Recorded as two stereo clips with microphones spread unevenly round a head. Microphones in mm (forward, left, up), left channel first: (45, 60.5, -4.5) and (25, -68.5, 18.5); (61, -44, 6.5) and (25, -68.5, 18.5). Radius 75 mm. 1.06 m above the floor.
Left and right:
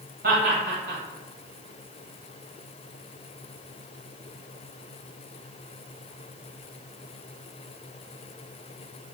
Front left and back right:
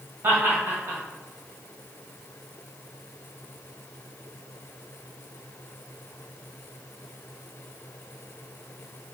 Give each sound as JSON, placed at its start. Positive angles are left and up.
{"t": 0.2, "sound": "laughter", "azimuth_deg": -110, "distance_m": 1.6}